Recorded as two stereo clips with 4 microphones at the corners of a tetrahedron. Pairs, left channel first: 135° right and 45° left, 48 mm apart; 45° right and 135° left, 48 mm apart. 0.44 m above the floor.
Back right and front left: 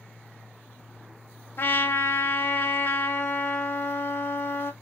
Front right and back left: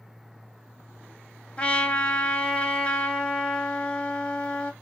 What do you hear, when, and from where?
1.6 s a trumpet: 105° right, 1.9 m